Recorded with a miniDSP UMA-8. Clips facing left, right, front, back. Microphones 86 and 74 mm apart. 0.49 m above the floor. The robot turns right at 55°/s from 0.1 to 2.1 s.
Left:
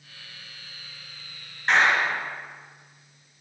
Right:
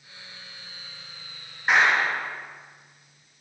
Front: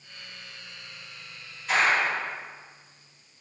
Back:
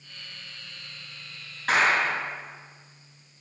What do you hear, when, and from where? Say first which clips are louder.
1.7 s a clap: even, back 1 dB; 170° right, 4.5 m; by 2.3 s 150° right, 4.5 m